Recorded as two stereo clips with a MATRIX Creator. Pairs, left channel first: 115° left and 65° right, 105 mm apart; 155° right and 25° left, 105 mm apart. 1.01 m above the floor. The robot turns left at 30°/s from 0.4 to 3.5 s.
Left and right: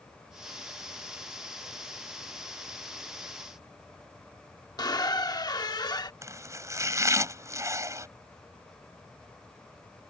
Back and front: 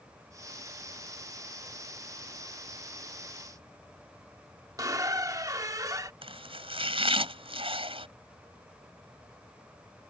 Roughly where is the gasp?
I don't hear a gasp.